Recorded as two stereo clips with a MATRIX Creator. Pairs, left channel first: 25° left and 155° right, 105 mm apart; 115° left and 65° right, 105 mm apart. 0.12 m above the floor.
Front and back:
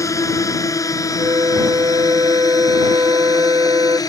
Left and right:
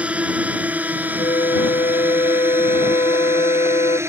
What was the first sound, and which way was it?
A drone, straight ahead.